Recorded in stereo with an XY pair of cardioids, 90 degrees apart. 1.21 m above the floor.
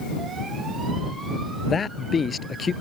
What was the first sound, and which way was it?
A man speaking, 40° left.